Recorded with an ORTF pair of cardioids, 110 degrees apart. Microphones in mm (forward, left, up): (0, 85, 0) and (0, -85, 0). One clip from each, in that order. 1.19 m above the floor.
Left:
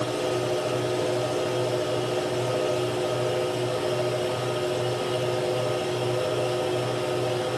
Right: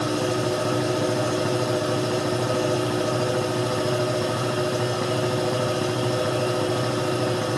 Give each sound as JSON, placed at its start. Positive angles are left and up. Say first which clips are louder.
{"t": 0.0, "sound": "a machine running", "louder": "right 2 dB", "azimuth_deg": -50, "distance_m": 9.5}